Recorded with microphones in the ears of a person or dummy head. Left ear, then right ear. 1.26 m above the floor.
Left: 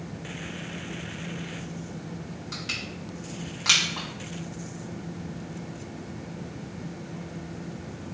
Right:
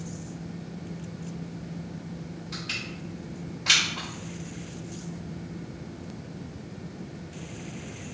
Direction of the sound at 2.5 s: 75° left (ahead or behind).